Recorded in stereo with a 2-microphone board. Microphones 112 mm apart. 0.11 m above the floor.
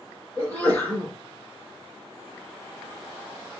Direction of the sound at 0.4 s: 15° left (ahead or behind).